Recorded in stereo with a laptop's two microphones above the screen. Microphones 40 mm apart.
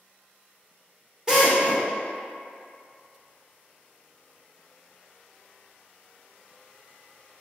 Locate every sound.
1.3 s a drill: 15° right (ahead or behind), 0.8 m